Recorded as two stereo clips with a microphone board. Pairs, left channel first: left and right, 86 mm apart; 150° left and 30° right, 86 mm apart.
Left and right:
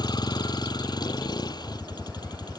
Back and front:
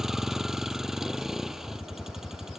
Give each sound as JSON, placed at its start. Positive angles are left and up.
{"t": 0.0, "sound": "a vehicle", "azimuth_deg": 55}